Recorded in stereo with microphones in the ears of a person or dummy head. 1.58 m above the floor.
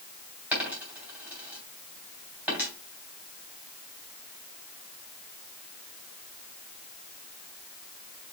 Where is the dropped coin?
5° right (ahead or behind), 2.5 m.